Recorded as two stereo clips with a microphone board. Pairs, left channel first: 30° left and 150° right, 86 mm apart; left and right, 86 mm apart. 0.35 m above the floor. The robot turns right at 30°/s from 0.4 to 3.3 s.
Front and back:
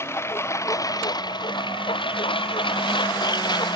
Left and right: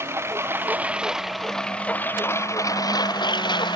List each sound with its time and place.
0.0 s a lawn mower: 30° right; by 3.8 s 60° left